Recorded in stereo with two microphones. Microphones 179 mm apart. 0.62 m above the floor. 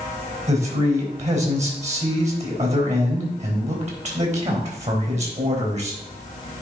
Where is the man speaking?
45° right (ahead or behind), 3.5 m.